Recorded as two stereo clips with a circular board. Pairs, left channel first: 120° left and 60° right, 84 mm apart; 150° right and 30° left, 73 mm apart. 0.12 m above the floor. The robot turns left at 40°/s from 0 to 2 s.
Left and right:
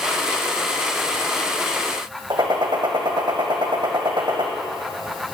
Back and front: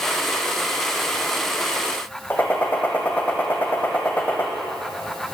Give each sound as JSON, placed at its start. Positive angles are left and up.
{"t": 2.3, "sound": "a gunshot", "azimuth_deg": -80, "distance_m": 1.5}